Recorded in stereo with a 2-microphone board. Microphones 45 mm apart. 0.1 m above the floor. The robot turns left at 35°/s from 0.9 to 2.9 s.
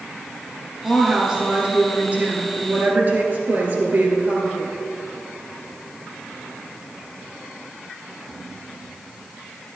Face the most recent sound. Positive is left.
turn(degrees=-85)